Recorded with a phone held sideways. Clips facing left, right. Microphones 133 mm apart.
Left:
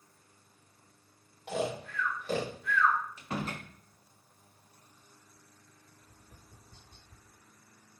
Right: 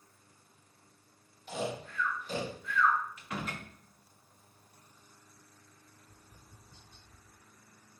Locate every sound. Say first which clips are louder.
1.5 s snoring: left 3 dB; 65° left (ahead or behind), 2.0 m
3.2 s a door slam: left 3 dB; 30° left (ahead or behind), 1.1 m
6.0 s tapping: left 1 dB; 55° left (ahead or behind), 0.8 m